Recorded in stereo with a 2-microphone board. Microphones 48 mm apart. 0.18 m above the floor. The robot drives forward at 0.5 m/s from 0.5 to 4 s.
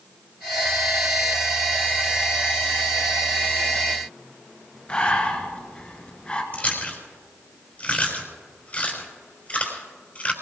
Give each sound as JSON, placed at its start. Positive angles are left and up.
{"t": 4.9, "sound": "breathing", "side_deg": 25, "distance_m": 1.8}
{"t": 6.5, "sound": "chewing", "side_deg": 30, "distance_m": 4.5}